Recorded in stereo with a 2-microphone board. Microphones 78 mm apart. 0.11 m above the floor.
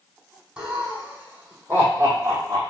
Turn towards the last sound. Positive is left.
turn(degrees=-40)  # may be behind; listen again after turning